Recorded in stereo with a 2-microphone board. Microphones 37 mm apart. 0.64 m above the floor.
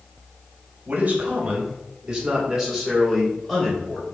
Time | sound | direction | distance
0.9 | a man speaking | 45° right (ahead or behind) | 1.6 m